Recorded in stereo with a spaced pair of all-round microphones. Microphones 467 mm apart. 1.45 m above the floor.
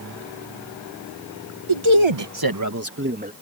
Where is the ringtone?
No ringtone in this recording.